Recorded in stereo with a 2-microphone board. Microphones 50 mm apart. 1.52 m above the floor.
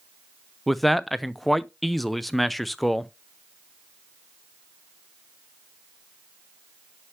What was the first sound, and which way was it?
A man speaking, centre (ahead or behind).